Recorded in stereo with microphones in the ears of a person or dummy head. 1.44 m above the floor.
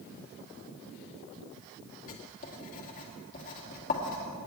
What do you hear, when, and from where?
2.1 s writing: 45° left (ahead or behind), 2.5 m